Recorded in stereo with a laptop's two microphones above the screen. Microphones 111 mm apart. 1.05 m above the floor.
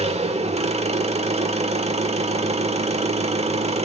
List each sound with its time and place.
0.0 s an engine running: 70° right (ahead or behind), 1.4 m